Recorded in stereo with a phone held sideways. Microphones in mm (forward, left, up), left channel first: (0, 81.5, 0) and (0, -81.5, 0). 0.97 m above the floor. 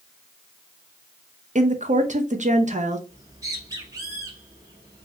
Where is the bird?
20° right (ahead or behind), 1.8 m.